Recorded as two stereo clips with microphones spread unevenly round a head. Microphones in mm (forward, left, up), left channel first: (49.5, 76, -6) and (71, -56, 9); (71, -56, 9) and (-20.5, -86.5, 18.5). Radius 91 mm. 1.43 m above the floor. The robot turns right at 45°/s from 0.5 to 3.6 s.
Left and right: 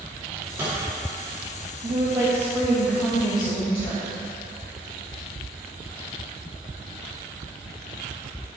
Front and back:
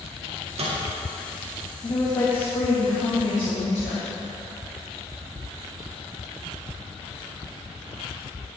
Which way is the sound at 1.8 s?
35° right.